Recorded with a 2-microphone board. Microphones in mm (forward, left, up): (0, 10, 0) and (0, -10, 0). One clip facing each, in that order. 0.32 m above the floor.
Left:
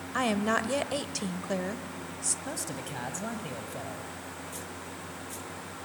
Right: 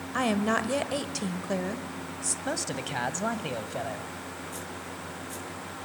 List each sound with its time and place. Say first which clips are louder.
0.1 s a woman speaking: right 1 dB; centre (ahead or behind), 1.1 m
2.5 s a man speaking: right 5 dB; 35° right (ahead or behind), 1.5 m